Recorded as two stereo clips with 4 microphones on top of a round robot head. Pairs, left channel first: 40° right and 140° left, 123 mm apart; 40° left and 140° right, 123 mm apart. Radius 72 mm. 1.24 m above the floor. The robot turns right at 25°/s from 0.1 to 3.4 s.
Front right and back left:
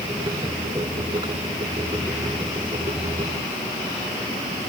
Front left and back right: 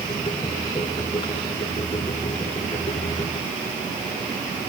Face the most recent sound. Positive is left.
No sound to turn to.